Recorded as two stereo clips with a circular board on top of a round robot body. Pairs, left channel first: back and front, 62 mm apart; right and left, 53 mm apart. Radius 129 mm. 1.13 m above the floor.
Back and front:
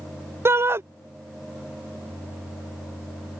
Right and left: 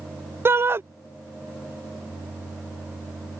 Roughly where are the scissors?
No scissors in this recording.